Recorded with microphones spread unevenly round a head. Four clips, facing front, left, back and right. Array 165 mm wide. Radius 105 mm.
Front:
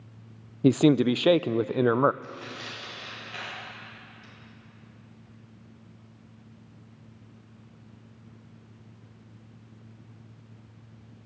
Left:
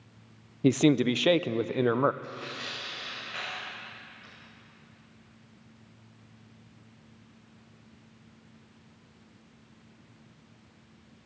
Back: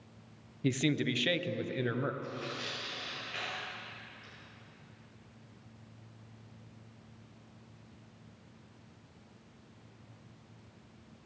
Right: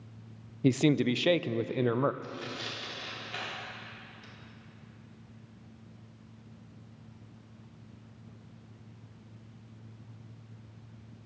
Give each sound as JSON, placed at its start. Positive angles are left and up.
{"t": 0.6, "sound": "a man speaking", "azimuth_deg": 20, "distance_m": 0.6}
{"t": 2.2, "sound": "tearing paper", "azimuth_deg": -105, "distance_m": 5.0}